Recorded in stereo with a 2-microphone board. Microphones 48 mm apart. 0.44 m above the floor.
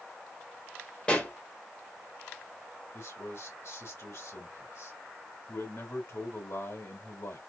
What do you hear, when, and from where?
1.1 s a pop: 25° left (ahead or behind), 1.6 m
2.9 s a man speaking: 70° left (ahead or behind), 2.5 m